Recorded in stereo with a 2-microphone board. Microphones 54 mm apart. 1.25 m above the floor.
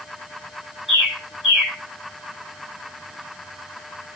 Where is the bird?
Centre (ahead or behind), 4 m.